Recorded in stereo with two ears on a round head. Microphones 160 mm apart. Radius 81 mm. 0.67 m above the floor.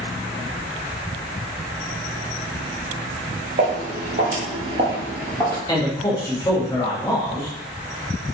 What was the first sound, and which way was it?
Footsteps, 50° right (ahead or behind).